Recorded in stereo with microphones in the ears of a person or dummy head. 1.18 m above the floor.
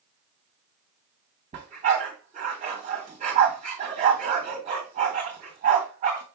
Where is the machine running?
I don't hear a machine running.